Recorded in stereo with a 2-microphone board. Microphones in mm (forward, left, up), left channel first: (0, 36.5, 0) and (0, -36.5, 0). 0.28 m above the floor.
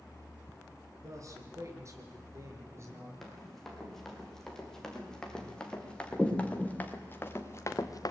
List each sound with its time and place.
1.0 s a man speaking: 45° right (ahead or behind), 4.5 m; by 3.1 s 40° right (ahead or behind), 6 m
3.2 s running footsteps: 5° left (ahead or behind), 8 m; by 8.1 s 60° left (ahead or behind), 1.8 m